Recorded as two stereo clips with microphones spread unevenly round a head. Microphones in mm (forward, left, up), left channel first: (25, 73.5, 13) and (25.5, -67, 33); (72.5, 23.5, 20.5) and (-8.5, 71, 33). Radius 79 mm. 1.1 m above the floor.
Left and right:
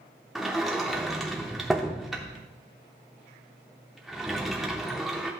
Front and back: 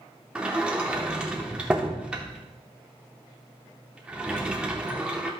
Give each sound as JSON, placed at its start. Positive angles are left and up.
{"t": 0.3, "sound": "a sliding door", "azimuth_deg": -160, "distance_m": 0.7}